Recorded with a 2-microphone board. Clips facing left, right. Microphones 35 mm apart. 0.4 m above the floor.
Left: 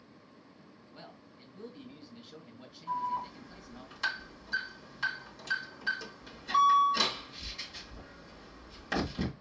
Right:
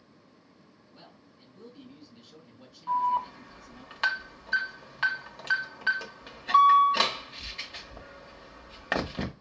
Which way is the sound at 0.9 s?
30° left (ahead or behind).